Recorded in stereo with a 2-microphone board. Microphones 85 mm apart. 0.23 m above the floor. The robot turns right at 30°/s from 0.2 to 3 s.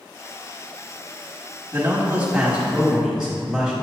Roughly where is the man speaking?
Ahead right.